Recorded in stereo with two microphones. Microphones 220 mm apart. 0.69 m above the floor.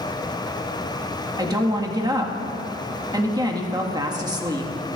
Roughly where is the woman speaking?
Centre.